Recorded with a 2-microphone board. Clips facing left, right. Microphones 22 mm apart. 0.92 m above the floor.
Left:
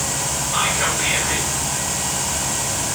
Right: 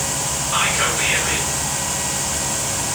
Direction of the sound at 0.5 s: 75° right (ahead or behind).